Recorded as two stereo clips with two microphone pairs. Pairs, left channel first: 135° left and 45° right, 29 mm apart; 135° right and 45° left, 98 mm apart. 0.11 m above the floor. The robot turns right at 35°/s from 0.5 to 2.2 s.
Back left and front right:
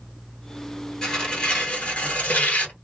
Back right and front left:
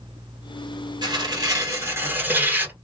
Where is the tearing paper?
70° left, 1.8 m; by 2.8 s 110° left, 1.8 m.